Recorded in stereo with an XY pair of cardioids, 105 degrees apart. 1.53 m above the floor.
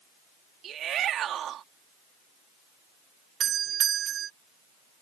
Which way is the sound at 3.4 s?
60° right.